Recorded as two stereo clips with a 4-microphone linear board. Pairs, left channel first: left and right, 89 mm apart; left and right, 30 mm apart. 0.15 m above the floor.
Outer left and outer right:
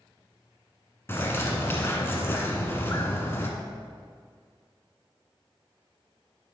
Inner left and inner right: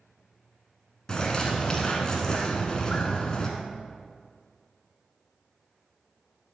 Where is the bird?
25° left (ahead or behind), 1.2 m.